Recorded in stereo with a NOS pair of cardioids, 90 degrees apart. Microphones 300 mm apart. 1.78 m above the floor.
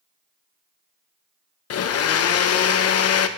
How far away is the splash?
No splash in this recording.